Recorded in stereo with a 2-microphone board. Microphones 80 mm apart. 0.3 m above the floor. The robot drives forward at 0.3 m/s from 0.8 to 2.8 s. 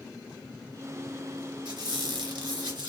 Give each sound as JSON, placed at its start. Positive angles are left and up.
{"t": 1.6, "sound": "a squeak", "side_deg": -70, "distance_m": 1.6}